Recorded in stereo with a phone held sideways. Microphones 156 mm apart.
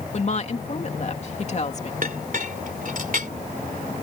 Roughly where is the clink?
Right.